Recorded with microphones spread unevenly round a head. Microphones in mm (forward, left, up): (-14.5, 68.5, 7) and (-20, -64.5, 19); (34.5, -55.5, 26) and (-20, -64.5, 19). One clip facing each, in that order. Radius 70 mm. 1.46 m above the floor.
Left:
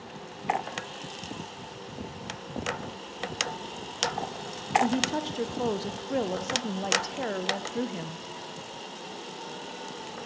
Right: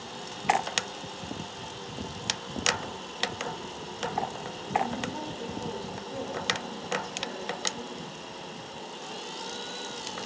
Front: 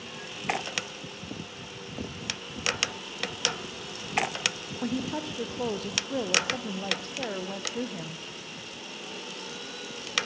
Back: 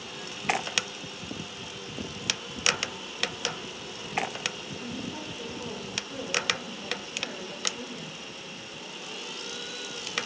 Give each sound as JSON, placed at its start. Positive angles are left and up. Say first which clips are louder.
{"t": 4.8, "sound": "a woman speaking", "louder": "left 5 dB, front 8 dB", "azimuth_deg": 60, "distance_m": 0.7}